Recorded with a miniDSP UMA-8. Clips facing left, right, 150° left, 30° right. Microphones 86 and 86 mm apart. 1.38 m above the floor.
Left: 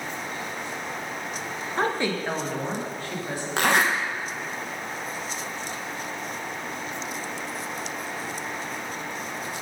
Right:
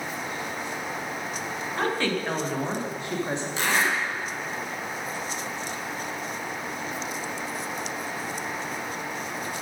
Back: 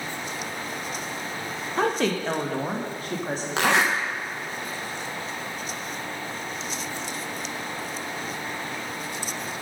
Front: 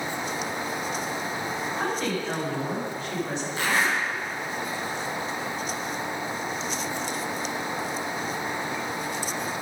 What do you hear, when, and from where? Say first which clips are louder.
1.8 s a woman speaking: left 1 dB, back 7 dB; 150° left, 1.2 m; by 3.5 s 155° right, 2 m
3.6 s a zipper: left 4 dB, back 4 dB; 125° left, 1.2 m